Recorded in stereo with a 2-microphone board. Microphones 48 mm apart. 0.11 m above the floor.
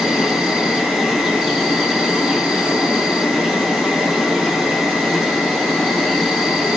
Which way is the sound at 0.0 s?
5° right (ahead or behind).